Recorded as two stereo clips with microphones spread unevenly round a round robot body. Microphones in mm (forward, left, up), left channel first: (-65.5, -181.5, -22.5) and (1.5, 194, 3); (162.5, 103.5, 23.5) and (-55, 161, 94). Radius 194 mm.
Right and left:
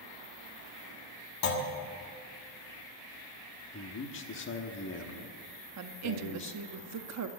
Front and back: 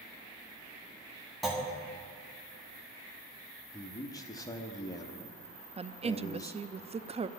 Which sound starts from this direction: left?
A woman speaking, at 5.8 s.